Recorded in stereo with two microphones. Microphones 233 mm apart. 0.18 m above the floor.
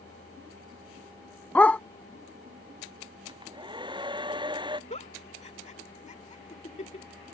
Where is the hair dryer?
20° right (ahead or behind).